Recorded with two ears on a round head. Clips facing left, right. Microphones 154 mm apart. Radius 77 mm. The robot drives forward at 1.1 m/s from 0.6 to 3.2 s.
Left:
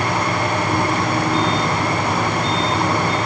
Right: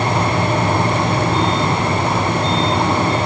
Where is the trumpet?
No trumpet in this recording.